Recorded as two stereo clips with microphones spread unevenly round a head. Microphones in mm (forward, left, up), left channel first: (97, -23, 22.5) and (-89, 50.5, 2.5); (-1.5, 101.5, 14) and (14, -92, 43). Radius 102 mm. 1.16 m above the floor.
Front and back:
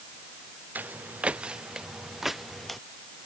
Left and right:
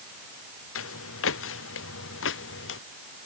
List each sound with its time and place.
0.8 s footsteps: 75° left; by 2.8 s 65° left